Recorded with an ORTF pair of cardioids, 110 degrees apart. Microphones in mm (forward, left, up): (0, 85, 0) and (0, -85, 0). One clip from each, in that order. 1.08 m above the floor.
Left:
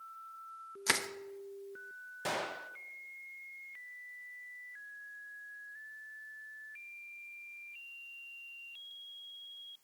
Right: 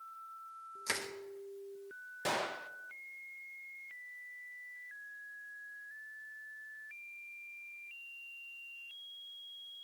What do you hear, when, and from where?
0.9 s crushing: 40° left, 1.0 m
2.2 s a gunshot: 5° right, 0.5 m